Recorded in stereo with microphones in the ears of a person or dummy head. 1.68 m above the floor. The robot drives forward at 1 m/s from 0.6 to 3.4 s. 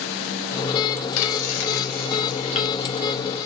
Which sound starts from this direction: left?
Frying, at 1.2 s.